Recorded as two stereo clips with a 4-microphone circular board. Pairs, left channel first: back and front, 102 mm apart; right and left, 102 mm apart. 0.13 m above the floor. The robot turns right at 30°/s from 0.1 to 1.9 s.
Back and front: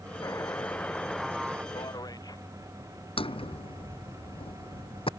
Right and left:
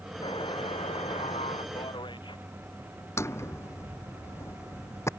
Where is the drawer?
155° right.